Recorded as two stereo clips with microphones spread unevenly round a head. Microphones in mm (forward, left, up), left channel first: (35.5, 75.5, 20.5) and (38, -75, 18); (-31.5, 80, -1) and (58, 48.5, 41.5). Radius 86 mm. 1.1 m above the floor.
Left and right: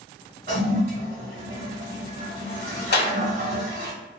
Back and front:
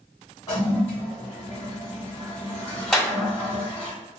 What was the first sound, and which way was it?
A toilet flushing, 120° right.